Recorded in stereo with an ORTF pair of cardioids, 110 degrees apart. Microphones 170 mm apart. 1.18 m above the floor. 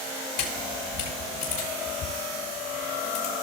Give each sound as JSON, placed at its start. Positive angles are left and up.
{"t": 0.4, "sound": "a camera shutter", "azimuth_deg": 60, "distance_m": 6.0}